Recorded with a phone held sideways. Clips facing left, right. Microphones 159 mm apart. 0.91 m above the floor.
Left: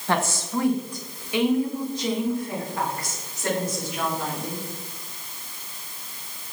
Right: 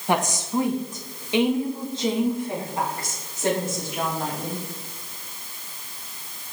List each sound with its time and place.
0.1 s a woman speaking: 15° right (ahead or behind), 0.8 m; by 4.6 s 25° right (ahead or behind), 3 m